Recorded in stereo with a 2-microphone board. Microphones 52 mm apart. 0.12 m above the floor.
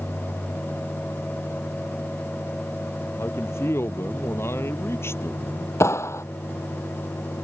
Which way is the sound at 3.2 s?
60° left (ahead or behind).